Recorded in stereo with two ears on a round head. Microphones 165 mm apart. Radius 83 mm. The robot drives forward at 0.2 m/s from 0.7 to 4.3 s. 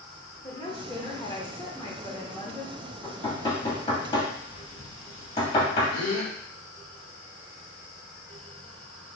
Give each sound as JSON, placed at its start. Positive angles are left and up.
{"t": 0.4, "sound": "a woman speaking", "side_deg": 20, "distance_m": 1.0}
{"t": 3.0, "sound": "knocking", "side_deg": 25, "distance_m": 2.5}
{"t": 5.9, "sound": "a gasp", "side_deg": 35, "distance_m": 1.8}